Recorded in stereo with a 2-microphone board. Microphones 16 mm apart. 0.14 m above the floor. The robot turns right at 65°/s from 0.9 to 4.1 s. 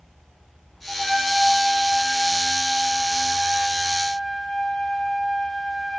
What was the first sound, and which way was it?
A trumpet, straight behind.